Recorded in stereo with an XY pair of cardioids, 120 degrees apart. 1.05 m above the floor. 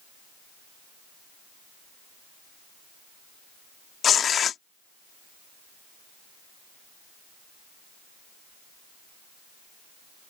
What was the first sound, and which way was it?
Tearing paper, 45° left.